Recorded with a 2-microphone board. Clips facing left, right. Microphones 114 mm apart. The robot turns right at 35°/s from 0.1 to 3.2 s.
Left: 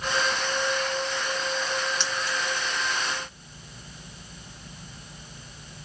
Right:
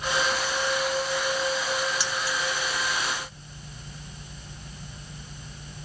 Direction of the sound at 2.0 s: 5° right (ahead or behind).